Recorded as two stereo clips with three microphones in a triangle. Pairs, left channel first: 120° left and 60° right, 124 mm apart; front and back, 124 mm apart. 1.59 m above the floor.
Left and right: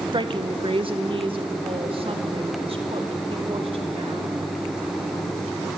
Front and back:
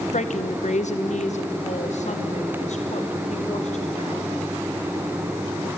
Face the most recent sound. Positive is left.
turn(degrees=-20)